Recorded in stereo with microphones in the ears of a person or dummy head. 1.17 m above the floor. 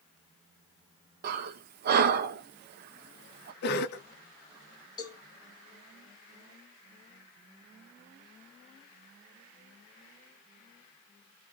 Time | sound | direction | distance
1.2 | breathing | 45° right (ahead or behind) | 0.5 m
3.6 | a cough | 55° left (ahead or behind) | 0.9 m
5.0 | a cowbell | 20° left (ahead or behind) | 1.3 m